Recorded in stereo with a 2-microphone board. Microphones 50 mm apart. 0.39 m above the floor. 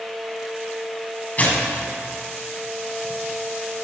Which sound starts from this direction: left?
Tearing paper, at 1.4 s.